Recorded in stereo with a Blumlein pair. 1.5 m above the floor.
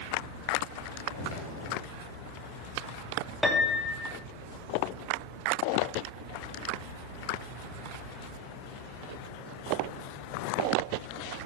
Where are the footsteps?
60° left, 6 m.